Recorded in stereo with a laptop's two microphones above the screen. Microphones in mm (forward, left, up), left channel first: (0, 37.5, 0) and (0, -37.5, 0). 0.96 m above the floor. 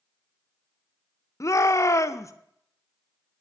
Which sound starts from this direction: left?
A shout, at 1.4 s.